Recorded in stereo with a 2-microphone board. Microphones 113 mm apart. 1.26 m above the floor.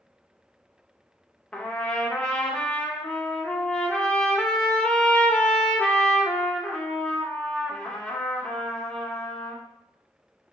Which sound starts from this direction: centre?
A trumpet, at 1.5 s.